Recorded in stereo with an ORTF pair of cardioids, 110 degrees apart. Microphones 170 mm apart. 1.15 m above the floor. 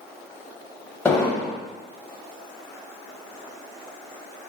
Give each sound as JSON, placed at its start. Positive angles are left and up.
{"t": 1.1, "sound": "an explosion", "azimuth_deg": 10, "distance_m": 0.9}